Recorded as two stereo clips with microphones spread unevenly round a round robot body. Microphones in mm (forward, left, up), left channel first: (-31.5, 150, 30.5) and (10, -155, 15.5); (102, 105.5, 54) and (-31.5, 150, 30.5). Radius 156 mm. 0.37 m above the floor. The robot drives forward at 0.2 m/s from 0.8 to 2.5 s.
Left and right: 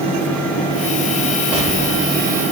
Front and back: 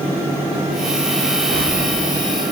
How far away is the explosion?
About 5.5 m.